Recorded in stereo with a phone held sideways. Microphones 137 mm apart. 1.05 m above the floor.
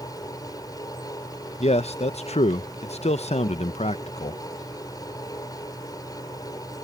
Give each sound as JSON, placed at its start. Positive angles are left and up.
{"t": 0.0, "sound": "a fan", "side_deg": 30}
{"t": 1.6, "sound": "a man speaking", "side_deg": 50}